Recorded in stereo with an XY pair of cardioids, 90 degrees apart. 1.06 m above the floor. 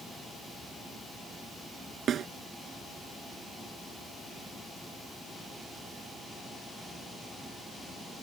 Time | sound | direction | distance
2.1 | a snare drum | 70° right | ?